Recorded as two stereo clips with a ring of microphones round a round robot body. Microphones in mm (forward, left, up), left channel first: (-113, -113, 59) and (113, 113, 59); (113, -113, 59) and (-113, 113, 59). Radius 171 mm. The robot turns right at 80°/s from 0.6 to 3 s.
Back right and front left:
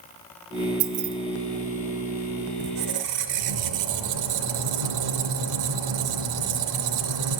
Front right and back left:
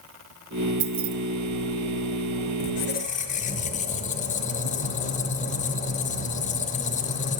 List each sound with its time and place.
0.8 s keys jangling: 65° left, 0.5 m; by 1.1 s 90° left, 0.5 m
2.6 s a squeak: 5° right, 0.7 m; by 7.4 s 25° left, 0.7 m